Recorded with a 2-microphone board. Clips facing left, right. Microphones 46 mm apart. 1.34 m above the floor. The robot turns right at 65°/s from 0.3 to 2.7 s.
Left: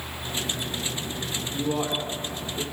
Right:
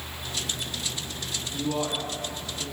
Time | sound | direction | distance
1.5 | a man speaking | 10° left (ahead or behind) | 3.5 m